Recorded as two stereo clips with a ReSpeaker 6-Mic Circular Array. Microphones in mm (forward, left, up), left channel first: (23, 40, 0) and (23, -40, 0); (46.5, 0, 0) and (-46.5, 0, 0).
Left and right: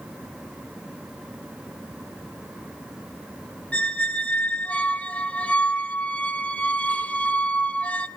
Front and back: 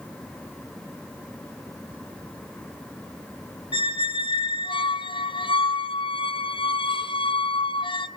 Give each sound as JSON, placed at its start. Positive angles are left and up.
{"t": 3.7, "sound": "a squeak", "azimuth_deg": 15, "distance_m": 0.9}